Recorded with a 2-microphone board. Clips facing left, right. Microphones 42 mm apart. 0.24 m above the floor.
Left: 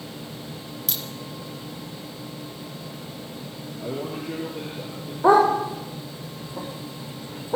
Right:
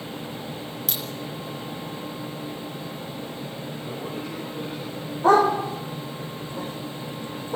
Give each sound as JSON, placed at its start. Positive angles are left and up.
{"t": 0.9, "sound": "a crack", "side_deg": -5, "distance_m": 4.0}
{"t": 3.8, "sound": "a man speaking", "side_deg": 65, "distance_m": 7.0}
{"t": 5.2, "sound": "a dog barking", "side_deg": 15, "distance_m": 6.5}